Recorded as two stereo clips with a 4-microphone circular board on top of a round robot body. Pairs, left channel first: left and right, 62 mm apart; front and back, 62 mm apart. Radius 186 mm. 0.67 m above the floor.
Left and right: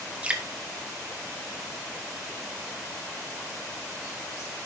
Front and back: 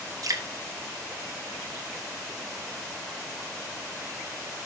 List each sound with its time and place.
0.2 s dripping: 160° right, 2 m